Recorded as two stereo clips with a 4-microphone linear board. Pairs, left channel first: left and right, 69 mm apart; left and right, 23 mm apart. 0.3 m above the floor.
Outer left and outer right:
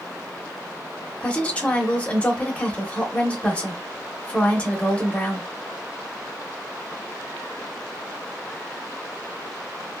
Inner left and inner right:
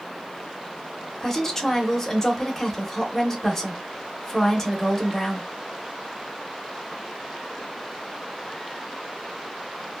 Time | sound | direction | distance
1.2 | a woman speaking | 20° left (ahead or behind) | 0.9 m